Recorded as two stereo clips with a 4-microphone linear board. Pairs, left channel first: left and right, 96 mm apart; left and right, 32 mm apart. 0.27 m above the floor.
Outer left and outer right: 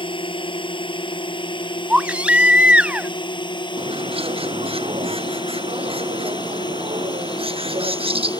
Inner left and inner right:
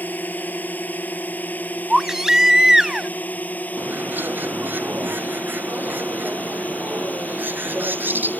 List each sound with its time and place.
0.0 s a drone: 55° left (ahead or behind); by 8.4 s 45° left (ahead or behind)
1.9 s a baby crying: 10° right (ahead or behind)
3.8 s a bird: 65° right (ahead or behind)